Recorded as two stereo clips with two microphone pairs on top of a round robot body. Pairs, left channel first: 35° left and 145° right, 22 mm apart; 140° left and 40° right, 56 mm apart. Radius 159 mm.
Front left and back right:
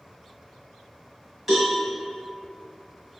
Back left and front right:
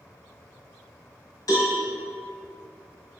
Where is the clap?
No clap in this recording.